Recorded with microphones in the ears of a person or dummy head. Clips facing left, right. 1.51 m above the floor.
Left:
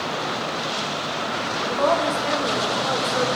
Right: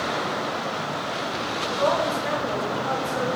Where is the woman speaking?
45° left (ahead or behind), 1.2 m.